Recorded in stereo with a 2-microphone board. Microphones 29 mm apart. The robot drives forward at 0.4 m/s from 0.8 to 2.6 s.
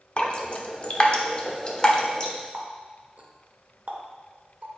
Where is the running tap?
60° right (ahead or behind), 1.4 m.